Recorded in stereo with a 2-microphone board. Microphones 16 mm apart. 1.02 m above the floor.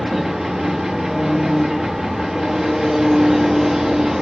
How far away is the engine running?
About 0.7 m.